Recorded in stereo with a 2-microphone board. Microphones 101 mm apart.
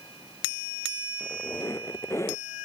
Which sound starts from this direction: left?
A squeak, at 1.2 s.